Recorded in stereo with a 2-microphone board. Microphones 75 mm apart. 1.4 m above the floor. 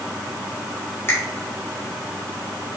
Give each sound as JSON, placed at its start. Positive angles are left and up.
{"t": 1.1, "sound": "a finger snap", "side_deg": 35, "distance_m": 3.0}